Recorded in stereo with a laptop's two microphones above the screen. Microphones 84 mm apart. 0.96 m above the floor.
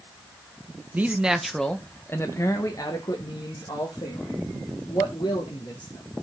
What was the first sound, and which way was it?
A man speaking, 20° right (ahead or behind).